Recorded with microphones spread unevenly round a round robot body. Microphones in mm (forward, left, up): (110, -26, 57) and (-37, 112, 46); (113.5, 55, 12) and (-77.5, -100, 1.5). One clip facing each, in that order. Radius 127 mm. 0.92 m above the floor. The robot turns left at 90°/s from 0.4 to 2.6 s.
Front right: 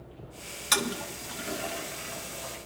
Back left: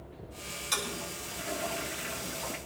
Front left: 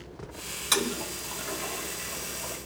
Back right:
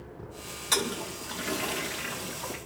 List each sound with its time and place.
0.7 s a toilet flushing: 30° right, 1.7 m; by 2.6 s 165° left, 1.7 m